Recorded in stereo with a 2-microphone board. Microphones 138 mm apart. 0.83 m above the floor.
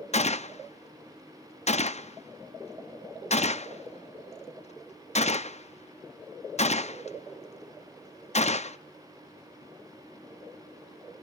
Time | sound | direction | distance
0.1 | a gunshot | 55° left (ahead or behind) | 0.6 m